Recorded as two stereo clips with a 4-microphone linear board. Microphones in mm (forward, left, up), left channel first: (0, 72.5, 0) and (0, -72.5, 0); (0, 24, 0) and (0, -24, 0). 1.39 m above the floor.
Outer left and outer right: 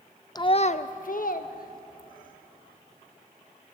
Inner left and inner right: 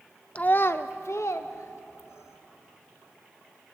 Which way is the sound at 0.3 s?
25° left (ahead or behind).